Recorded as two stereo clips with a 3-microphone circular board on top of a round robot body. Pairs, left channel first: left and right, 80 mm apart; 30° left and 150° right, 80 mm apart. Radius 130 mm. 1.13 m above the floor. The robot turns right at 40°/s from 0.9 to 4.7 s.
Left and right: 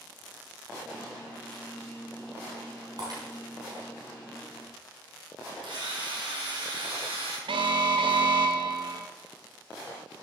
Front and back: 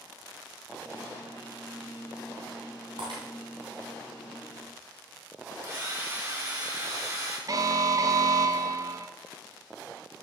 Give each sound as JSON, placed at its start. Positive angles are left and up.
{"t": 3.0, "sound": "breaking glass", "azimuth_deg": -130, "distance_m": 4.0}
{"t": 5.6, "sound": "a drill", "azimuth_deg": -95, "distance_m": 4.0}
{"t": 7.5, "sound": "an alarm", "azimuth_deg": -105, "distance_m": 0.6}